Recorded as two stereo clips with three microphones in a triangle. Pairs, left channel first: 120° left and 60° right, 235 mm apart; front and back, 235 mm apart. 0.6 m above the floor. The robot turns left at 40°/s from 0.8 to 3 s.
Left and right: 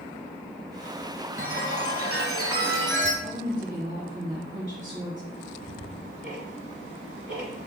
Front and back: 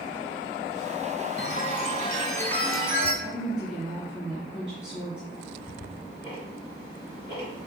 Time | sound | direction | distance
1.4 | a chime | 35° right | 0.9 m
3.2 | a woman speaking | 115° right | 1.2 m
5.3 | ticking | 145° left | 1.9 m